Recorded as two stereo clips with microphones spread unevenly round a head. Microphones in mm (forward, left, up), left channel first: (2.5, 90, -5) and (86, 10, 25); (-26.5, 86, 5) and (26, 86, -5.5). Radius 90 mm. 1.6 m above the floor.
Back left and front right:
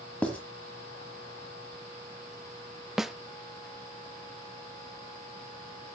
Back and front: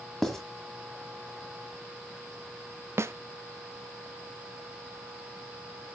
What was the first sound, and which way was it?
Writing, 125° right.